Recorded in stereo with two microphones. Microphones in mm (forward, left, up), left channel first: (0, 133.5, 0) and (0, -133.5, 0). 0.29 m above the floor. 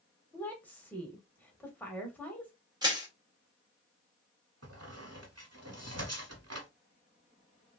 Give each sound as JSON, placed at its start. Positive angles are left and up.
{"t": 0.3, "sound": "a woman speaking", "side_deg": 5, "distance_m": 1.1}
{"t": 2.8, "sound": "crushing", "side_deg": -15, "distance_m": 1.3}
{"t": 4.6, "sound": "a squeak", "side_deg": -75, "distance_m": 0.8}